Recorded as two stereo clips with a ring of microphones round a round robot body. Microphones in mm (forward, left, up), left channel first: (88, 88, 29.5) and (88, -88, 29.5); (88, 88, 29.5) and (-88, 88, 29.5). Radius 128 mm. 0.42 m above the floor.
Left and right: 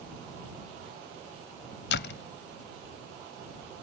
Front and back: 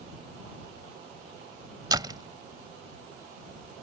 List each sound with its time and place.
1.9 s a door slam: 115° left